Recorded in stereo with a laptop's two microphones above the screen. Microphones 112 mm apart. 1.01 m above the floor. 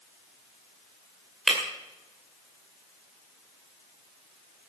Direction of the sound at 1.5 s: 5° left (ahead or behind).